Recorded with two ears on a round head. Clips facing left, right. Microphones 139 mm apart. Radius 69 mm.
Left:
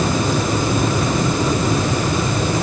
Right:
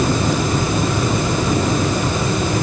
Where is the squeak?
I don't hear a squeak.